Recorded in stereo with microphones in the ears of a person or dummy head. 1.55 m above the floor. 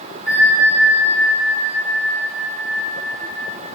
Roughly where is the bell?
Centre.